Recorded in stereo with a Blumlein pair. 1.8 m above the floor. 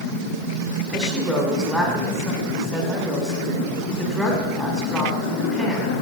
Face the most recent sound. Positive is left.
turn(degrees=0)